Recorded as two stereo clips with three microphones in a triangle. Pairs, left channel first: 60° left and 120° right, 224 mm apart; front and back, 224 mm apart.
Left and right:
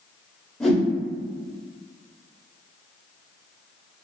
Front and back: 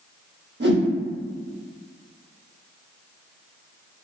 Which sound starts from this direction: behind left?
A whoosh, at 0.6 s.